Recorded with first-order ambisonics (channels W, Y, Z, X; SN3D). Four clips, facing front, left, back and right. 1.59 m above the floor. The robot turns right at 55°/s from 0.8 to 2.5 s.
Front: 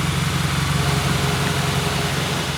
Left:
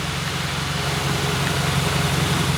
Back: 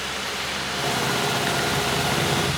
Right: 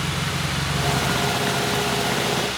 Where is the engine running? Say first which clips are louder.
Even, front 4 dB; 5° right; by 2.6 s 90° left.